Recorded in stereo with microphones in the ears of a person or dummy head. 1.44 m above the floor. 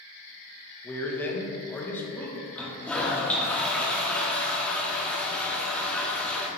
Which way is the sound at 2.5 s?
10° left (ahead or behind).